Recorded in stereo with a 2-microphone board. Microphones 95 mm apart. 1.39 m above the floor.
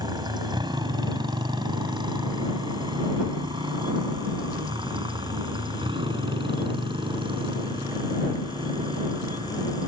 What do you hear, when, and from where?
0.0 s a motorcycle: 50° right (ahead or behind); by 9.9 s 65° right (ahead or behind)